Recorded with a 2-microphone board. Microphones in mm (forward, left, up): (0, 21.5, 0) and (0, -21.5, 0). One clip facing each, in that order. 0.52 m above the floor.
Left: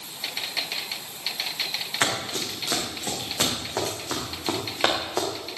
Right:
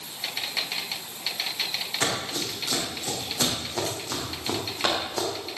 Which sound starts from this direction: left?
Running footsteps, at 2.0 s.